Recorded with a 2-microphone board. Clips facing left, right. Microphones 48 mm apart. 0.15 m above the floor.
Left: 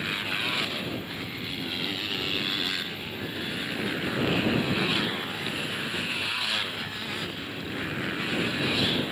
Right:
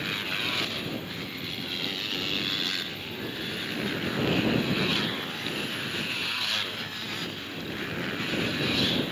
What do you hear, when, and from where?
0.0 s a motorcycle: 5° left (ahead or behind)